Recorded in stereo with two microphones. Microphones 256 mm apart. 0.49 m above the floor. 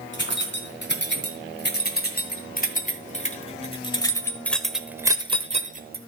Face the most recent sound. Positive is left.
turn(degrees=-40)  # may be behind; listen again after turning